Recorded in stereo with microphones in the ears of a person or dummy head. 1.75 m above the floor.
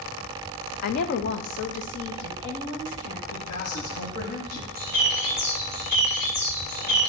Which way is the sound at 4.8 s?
45° left (ahead or behind).